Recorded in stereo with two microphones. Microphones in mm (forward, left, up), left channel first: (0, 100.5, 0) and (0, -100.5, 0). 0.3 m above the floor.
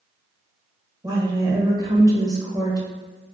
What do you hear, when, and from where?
1.0 s a woman speaking: 20° right (ahead or behind), 0.9 m